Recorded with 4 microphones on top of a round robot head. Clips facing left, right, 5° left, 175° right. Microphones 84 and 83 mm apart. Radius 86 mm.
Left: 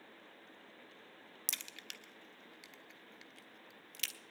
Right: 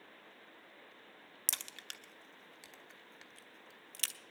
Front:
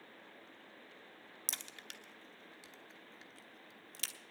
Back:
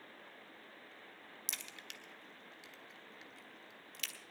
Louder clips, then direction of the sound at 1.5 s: Right 2 dB, front 1 dB; 45° right.